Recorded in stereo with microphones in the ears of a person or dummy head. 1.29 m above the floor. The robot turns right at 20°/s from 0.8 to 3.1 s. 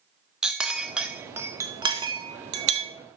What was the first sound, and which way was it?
A clink, centre (ahead or behind).